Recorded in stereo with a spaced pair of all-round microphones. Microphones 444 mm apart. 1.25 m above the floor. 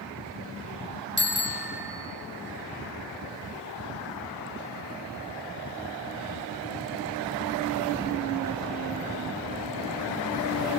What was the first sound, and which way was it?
A bicycle bell, 25° left (ahead or behind).